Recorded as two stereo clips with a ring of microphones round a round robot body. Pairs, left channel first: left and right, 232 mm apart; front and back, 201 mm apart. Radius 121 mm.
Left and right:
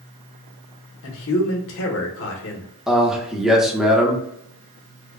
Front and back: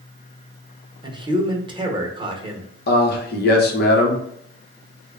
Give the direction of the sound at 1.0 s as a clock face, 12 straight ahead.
8 o'clock.